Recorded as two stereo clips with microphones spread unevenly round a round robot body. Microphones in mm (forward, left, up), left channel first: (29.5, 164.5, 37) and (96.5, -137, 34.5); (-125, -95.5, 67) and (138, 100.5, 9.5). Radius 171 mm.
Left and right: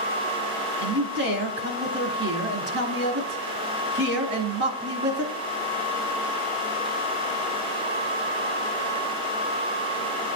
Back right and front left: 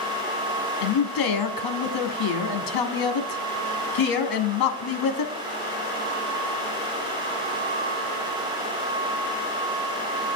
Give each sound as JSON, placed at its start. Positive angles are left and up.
{"t": 0.8, "sound": "a man speaking", "azimuth_deg": -130, "distance_m": 1.3}